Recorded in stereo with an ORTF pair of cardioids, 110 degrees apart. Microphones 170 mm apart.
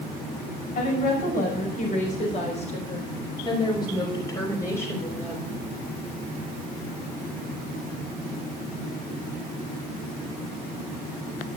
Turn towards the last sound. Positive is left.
turn(degrees=5)